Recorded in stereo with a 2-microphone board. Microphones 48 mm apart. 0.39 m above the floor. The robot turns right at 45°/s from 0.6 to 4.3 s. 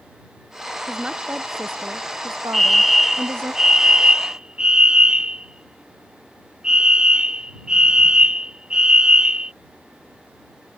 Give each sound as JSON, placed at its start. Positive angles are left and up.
{"t": 0.9, "sound": "a woman speaking", "azimuth_deg": -170}
{"t": 2.5, "sound": "a fire alarm", "side_deg": 5}